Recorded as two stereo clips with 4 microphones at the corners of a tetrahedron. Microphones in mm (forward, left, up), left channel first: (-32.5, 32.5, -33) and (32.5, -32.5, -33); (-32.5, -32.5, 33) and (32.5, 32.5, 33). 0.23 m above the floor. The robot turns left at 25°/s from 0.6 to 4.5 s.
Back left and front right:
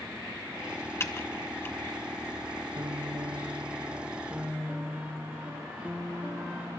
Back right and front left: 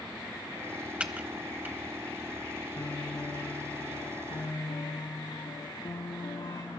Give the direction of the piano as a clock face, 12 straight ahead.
2 o'clock.